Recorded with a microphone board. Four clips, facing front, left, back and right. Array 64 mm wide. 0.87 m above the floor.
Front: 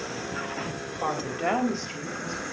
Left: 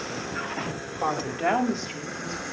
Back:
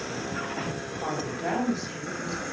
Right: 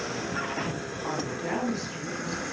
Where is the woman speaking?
55° left, 4.5 m; by 2.4 s 40° left, 6 m.